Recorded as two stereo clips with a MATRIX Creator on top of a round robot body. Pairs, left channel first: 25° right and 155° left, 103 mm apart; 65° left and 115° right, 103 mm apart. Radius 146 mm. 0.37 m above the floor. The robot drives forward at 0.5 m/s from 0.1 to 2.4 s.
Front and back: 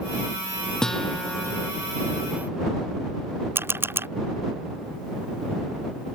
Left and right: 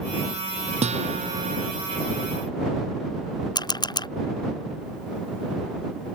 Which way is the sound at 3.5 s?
95° left.